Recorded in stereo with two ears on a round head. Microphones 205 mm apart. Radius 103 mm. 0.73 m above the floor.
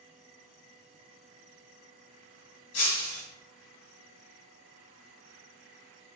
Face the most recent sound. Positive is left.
turn(degrees=70)  # may be behind; listen again after turning